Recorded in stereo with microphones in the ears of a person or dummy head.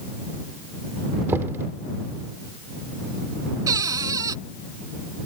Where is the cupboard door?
20° right (ahead or behind).